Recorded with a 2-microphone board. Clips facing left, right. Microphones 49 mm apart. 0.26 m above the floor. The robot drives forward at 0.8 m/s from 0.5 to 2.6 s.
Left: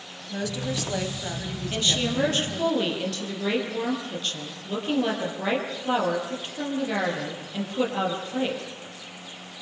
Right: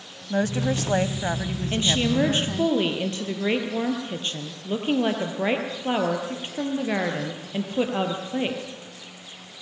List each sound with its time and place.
0.3 s a woman speaking: 40° right (ahead or behind), 1.4 m; by 2.7 s 25° right (ahead or behind), 2 m
1.7 s a woman speaking: 20° right (ahead or behind), 5.5 m; by 8.6 s 25° right (ahead or behind), 5 m